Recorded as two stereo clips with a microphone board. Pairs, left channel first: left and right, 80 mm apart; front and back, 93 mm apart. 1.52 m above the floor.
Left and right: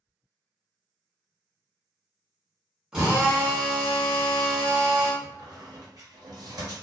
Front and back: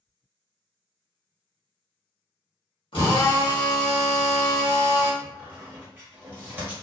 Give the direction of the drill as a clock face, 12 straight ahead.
12 o'clock.